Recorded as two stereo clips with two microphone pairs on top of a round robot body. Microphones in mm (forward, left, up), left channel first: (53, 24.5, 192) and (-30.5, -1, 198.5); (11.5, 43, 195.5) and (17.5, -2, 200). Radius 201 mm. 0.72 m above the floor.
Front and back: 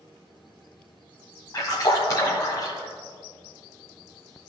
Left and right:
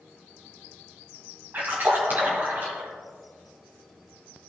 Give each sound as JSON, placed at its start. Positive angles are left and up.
{"t": 1.5, "sound": "a splash", "azimuth_deg": -35, "distance_m": 1.7}